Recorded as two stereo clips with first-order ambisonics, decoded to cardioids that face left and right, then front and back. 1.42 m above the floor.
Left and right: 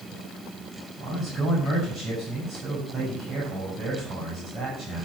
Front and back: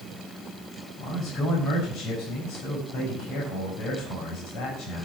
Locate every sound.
1.0 s a man speaking: 30° right, 5.5 m